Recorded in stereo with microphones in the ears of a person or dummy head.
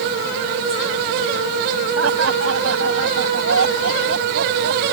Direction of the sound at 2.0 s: 85° right.